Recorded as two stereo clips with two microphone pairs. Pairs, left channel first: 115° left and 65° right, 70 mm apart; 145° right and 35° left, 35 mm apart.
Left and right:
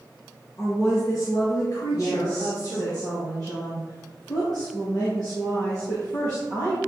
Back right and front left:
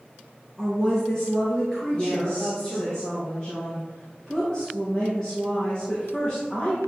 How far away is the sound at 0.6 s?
About 2.5 m.